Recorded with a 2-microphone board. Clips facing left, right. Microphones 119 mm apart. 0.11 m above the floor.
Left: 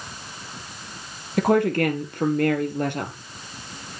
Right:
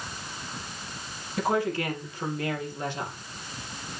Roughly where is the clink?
I don't hear a clink.